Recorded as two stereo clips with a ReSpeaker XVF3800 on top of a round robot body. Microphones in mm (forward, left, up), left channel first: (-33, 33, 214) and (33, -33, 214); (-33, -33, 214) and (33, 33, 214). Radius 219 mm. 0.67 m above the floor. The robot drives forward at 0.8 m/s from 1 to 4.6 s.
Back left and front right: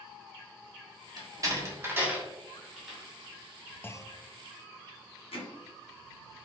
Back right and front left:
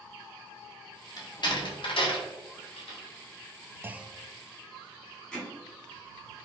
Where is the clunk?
90° left, 0.6 m; by 4.2 s 140° left, 0.7 m.